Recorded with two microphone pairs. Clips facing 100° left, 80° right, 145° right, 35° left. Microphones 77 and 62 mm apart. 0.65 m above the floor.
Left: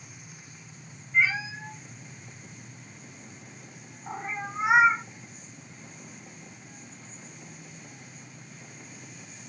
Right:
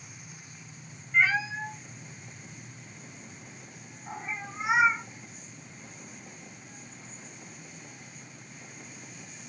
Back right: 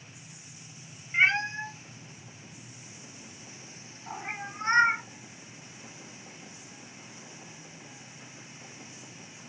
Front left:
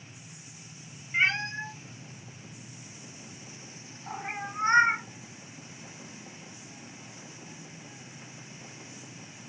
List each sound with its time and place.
1.1 s a cat meowing: 65° right, 1.1 m; by 5.0 s 110° left, 1.1 m